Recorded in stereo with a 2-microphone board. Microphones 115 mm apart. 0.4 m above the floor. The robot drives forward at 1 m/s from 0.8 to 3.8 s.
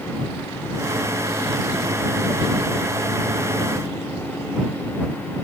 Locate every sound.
Only background noise.